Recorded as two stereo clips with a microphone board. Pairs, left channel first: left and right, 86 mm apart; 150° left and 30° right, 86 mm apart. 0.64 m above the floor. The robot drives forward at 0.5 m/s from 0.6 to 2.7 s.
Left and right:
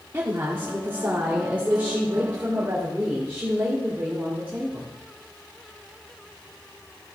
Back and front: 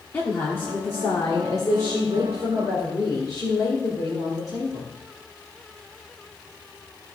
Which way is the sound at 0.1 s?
150° right.